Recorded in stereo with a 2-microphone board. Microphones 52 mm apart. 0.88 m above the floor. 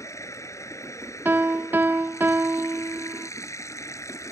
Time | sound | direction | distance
0.0 | running water | 75° left (ahead or behind) | ?
1.2 | a piano | 40° right (ahead or behind) | ?